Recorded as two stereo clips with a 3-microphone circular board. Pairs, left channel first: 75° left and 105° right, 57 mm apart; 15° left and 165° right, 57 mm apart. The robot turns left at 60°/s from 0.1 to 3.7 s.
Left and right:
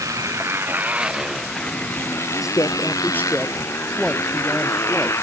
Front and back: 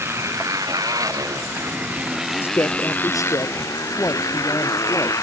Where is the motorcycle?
120° right; by 5.2 s 40° left.